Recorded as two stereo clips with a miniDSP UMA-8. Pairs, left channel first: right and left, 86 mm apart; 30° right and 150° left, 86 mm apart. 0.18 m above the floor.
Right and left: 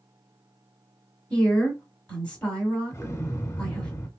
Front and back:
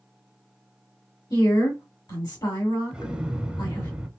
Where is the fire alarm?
I don't hear a fire alarm.